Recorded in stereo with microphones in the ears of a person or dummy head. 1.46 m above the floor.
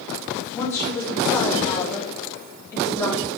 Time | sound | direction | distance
0.5 | a woman speaking | 15° left (ahead or behind) | 3.5 m